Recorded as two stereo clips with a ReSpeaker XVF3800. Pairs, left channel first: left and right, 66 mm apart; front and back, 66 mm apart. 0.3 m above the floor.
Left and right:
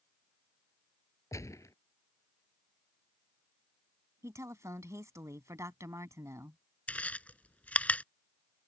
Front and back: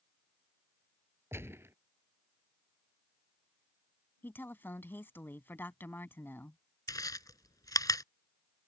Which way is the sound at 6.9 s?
20° left.